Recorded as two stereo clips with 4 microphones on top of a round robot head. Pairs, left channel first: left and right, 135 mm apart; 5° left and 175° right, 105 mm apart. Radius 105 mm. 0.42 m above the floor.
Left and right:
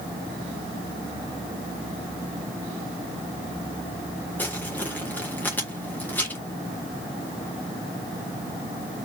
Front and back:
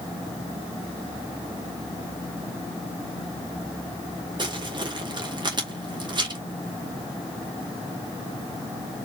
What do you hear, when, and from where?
4.4 s crumpling: 165° left, 2.0 m